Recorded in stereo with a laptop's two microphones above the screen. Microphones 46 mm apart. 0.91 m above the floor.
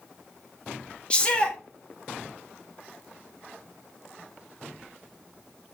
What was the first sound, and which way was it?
A shout, 20° left (ahead or behind).